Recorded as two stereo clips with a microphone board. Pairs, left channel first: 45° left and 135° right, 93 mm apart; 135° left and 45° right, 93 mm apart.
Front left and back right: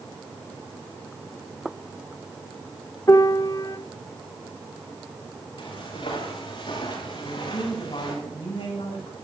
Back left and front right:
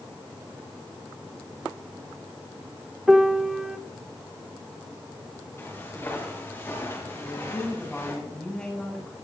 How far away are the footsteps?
About 8 m.